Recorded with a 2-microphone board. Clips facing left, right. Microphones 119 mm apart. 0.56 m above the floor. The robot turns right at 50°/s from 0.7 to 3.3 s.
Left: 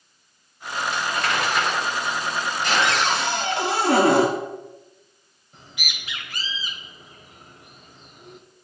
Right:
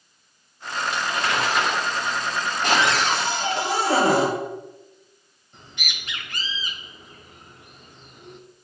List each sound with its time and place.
0.9 s crumpling: 10° right (ahead or behind), 2.5 m; by 3.6 s 50° right (ahead or behind), 2.5 m
2.8 s a cupboard door: 50° left (ahead or behind), 2 m; by 4.3 s 75° left (ahead or behind), 2 m
5.5 s a bird: 5° left (ahead or behind), 1.0 m